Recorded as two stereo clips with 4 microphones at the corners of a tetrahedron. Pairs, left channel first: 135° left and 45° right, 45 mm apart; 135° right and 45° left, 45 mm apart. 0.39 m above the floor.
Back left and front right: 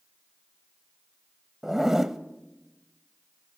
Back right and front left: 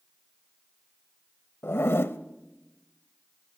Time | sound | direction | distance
1.6 | a zipper | 125° right | 0.9 m